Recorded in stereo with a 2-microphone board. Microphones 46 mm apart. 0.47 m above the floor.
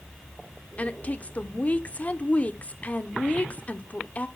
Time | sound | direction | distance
0.8 | a woman speaking | 30° left (ahead or behind) | 0.8 m